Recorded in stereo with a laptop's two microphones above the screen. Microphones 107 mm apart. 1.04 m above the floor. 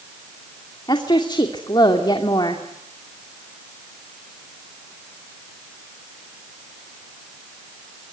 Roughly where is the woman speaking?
Left.